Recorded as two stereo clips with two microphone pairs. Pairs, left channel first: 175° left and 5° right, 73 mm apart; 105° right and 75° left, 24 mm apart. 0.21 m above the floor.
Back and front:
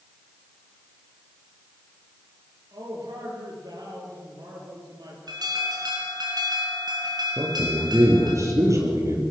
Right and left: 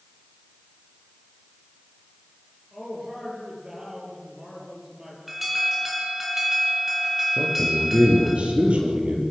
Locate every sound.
2.7 s a man speaking: 5° left, 5.5 m
5.3 s an alarm: 10° right, 3.5 m
7.4 s a man speaking: 40° left, 5.5 m